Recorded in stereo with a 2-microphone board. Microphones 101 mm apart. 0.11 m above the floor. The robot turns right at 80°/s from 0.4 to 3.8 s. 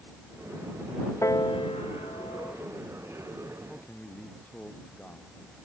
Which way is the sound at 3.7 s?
5° left (ahead or behind).